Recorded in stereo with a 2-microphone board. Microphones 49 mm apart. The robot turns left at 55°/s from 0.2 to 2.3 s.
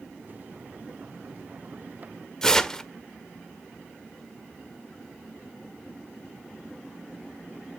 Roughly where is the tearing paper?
Centre.